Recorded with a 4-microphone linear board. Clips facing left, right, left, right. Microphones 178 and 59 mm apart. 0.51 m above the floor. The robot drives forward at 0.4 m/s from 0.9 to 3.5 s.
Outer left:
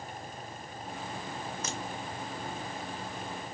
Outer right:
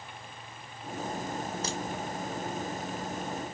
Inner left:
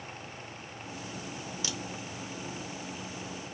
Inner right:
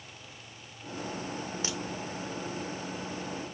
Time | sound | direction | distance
1.6 | a crack | 35° right (ahead or behind) | 0.8 m